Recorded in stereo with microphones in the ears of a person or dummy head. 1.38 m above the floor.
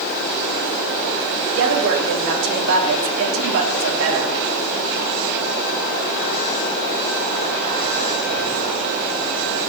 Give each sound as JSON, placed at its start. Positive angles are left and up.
{"t": 1.6, "sound": "a woman speaking", "side_deg": -75, "distance_m": 3.0}